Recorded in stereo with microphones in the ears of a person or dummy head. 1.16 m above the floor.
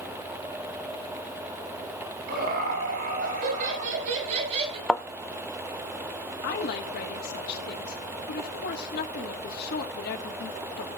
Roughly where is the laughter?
Right.